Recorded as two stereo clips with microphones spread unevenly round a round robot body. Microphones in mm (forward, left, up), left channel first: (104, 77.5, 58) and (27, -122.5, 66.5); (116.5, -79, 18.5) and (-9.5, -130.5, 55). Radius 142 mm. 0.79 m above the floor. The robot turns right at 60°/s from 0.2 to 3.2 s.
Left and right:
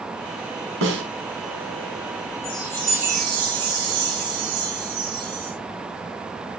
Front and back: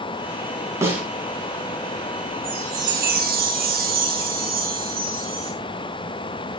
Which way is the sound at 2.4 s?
130° left.